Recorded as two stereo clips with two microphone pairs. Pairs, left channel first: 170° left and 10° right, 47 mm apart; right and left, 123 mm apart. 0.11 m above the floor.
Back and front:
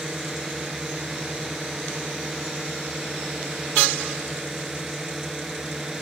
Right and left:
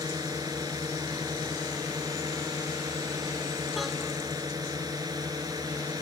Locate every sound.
0.0 s a drone: 70° left